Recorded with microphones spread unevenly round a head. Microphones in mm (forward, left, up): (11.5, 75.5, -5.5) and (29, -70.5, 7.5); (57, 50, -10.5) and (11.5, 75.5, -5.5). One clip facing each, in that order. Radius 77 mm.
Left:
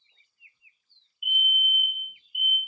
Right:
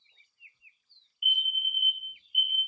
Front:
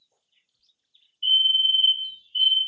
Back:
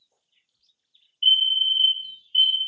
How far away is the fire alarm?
About 1.6 m.